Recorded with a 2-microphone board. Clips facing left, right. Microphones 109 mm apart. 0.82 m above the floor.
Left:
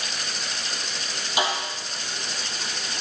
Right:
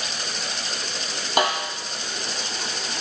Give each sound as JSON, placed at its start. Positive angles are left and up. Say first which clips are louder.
{"t": 1.4, "sound": "a snare drum", "louder": "right 4 dB", "side_deg": -55, "distance_m": 4.5}